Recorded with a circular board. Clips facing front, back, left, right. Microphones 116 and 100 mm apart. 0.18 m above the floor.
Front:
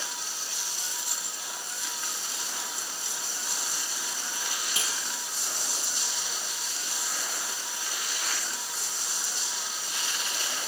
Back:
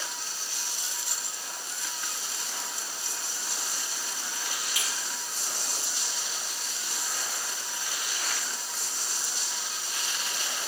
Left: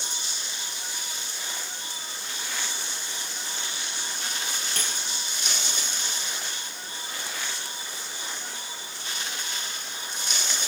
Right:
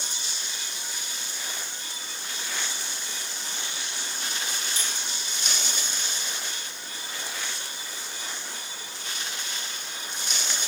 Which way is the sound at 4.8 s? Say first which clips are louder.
Front 1 dB, left 1 dB; 60° left.